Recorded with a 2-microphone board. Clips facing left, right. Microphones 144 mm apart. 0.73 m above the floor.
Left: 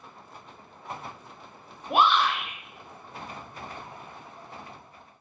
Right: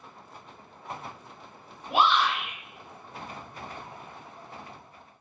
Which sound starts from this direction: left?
A shout, at 1.9 s.